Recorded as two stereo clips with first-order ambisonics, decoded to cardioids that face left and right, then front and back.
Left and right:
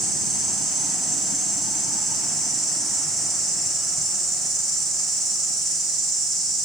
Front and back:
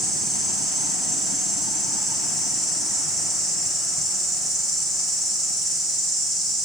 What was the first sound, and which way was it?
An insect, 120° right.